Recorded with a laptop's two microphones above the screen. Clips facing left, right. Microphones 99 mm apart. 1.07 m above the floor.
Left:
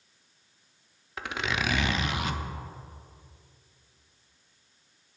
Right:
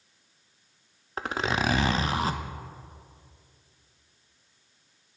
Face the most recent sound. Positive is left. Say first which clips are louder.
# right 4 dB
turn(degrees=-35)  # may be behind; listen again after turning